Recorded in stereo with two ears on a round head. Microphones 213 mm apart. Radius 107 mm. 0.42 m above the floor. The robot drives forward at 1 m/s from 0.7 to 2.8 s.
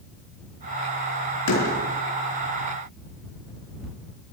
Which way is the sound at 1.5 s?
85° left.